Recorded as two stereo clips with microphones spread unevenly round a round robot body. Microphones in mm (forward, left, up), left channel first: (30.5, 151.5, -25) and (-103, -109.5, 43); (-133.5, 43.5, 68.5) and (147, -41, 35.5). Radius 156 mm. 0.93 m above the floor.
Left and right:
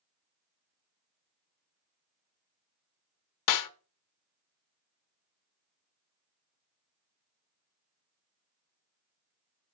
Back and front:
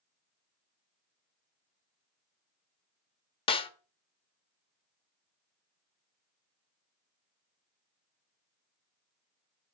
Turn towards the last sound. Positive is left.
turn(degrees=90)